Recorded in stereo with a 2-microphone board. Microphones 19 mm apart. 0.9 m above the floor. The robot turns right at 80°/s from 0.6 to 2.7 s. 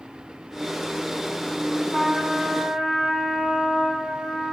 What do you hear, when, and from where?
1.9 s a trumpet: 100° right, 2.5 m; by 4.5 s 35° right, 2.5 m